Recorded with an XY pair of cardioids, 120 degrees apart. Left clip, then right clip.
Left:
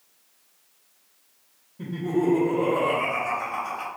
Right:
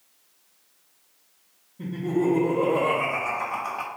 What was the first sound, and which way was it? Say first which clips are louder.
Laughter: even; 10° left.